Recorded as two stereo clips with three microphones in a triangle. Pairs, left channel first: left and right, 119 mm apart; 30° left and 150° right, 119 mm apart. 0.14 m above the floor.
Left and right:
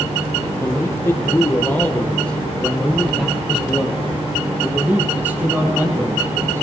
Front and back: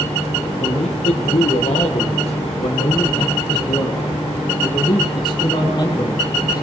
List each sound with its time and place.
0.6 s a man speaking: 25° left, 3 m; by 6.6 s 25° right, 4.5 m